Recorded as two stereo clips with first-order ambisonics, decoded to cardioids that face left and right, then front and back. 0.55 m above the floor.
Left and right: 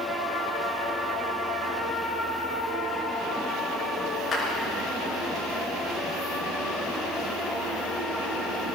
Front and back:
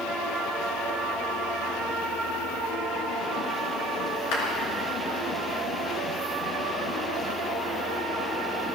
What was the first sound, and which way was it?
A clap, 20° left.